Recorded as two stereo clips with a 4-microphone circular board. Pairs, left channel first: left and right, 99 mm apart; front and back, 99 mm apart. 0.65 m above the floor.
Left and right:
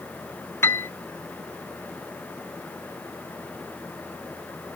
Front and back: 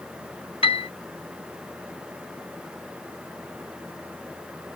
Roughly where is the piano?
Ahead left.